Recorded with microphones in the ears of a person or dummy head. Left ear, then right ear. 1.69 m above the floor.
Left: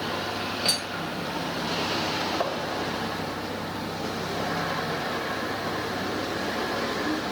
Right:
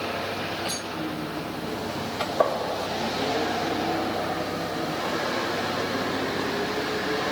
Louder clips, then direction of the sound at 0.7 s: Left 3 dB; 35° left (ahead or behind).